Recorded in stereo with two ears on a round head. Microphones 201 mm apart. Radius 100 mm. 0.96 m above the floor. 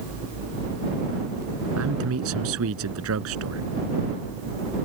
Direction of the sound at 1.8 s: 70° right (ahead or behind).